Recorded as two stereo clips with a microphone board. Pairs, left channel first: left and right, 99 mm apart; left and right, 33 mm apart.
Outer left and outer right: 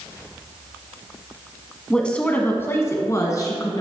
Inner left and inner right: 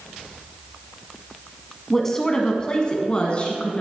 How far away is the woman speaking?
About 1.0 m.